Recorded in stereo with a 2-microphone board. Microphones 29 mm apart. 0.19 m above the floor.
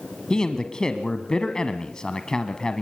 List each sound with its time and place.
0.3 s a man speaking: 30° left (ahead or behind), 1.1 m